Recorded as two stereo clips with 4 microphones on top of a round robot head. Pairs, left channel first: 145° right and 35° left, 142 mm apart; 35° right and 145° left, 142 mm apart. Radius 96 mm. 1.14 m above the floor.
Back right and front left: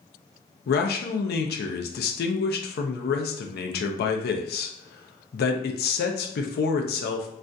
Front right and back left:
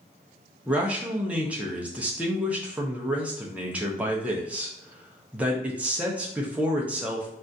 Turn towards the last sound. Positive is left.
turn(degrees=-135)